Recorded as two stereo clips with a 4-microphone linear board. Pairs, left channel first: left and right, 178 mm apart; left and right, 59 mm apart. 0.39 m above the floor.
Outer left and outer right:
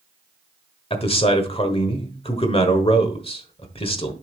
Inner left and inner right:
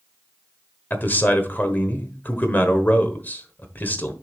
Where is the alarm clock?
I don't hear an alarm clock.